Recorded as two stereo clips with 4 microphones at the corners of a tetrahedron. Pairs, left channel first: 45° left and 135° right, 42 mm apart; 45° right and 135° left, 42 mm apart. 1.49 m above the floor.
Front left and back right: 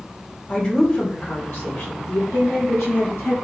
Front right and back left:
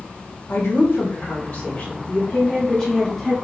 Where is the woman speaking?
5° right, 1.9 m; by 3.4 s 40° left, 1.9 m.